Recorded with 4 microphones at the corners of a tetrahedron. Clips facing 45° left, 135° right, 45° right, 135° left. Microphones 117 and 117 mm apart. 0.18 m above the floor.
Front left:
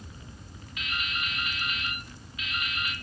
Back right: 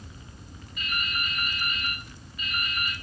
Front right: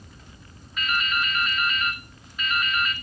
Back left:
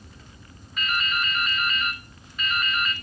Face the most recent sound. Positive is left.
turn(degrees=45)